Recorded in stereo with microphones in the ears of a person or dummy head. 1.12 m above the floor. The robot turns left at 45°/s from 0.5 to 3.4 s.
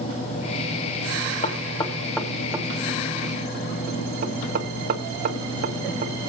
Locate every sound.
1.4 s knocking: 45° left (ahead or behind), 1.4 m; by 6.3 s 45° right (ahead or behind), 1.4 m